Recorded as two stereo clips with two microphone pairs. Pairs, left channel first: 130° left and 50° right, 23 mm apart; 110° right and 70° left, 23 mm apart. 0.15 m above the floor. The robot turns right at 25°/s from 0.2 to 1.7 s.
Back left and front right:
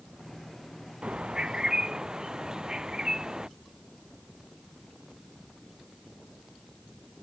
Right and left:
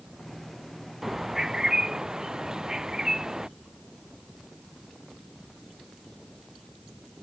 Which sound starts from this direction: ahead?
A bird, at 1.0 s.